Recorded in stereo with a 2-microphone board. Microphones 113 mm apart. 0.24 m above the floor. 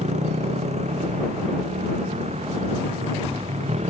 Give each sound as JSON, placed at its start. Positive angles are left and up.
{"t": 0.0, "sound": "a motorcycle", "side_deg": -85}